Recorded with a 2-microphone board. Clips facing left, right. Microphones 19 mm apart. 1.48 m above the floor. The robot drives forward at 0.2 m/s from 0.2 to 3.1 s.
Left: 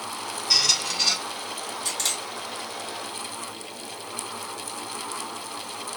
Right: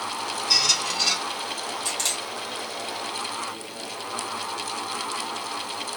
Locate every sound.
0.5 s a squeak: 5° left (ahead or behind), 0.7 m
1.9 s a camera shutter: 5° right (ahead or behind), 2 m